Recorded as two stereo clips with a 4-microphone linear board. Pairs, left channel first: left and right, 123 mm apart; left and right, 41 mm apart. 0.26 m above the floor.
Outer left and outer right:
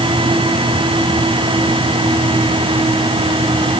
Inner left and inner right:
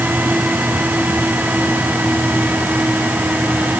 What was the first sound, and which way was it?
Only background noise.